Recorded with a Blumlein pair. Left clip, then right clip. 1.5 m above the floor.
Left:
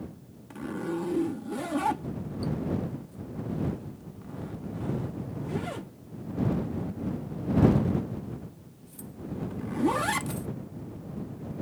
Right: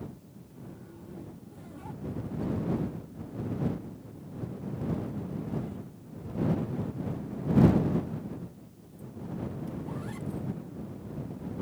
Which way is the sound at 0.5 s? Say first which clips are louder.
Left 17 dB; 50° left.